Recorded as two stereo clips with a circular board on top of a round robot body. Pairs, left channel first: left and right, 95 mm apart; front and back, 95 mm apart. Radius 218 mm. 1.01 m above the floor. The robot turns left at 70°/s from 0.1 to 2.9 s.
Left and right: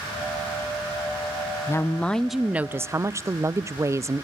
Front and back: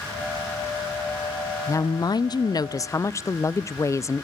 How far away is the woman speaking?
About 0.6 m.